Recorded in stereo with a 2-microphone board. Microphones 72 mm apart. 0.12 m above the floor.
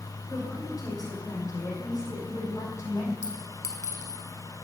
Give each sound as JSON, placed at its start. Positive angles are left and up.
{"t": 0.3, "sound": "a woman speaking", "side_deg": 55, "distance_m": 3.5}
{"t": 3.2, "sound": "a clink", "side_deg": 50, "distance_m": 1.5}